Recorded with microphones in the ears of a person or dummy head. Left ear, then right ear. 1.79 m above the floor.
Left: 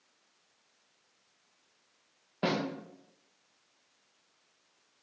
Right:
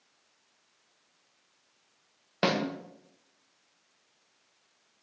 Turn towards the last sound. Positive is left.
turn(degrees=-70)  # may be behind; listen again after turning